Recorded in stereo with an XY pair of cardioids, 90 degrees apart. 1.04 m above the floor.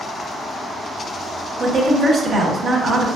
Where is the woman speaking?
60° right, 1.1 m.